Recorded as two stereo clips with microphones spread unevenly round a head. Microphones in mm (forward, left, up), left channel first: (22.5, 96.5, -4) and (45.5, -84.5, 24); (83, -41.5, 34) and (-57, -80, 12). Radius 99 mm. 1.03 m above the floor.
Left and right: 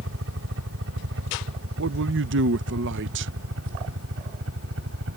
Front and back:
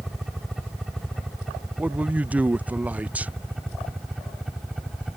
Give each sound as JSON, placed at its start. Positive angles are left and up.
{"t": 0.0, "sound": "a helicopter", "azimuth_deg": -75}
{"t": 1.8, "sound": "a man speaking", "azimuth_deg": -90}